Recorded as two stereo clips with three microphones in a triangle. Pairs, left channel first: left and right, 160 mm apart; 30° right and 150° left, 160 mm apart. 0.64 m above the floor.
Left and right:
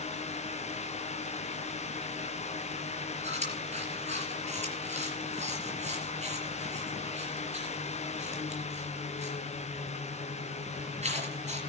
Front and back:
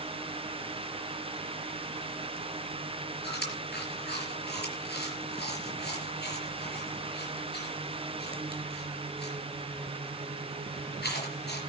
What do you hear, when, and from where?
3.2 s chewing: 40° right, 4.5 m